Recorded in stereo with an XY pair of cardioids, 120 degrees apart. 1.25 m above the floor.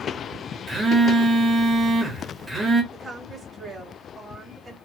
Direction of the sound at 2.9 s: 20° right.